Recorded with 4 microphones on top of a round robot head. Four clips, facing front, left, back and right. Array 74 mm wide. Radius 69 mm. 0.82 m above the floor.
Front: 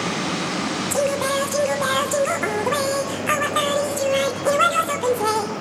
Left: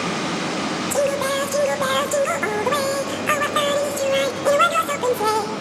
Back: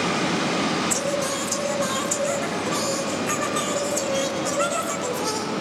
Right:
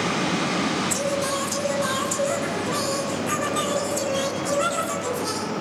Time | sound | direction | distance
0.9 | singing | 60° left | 2.5 m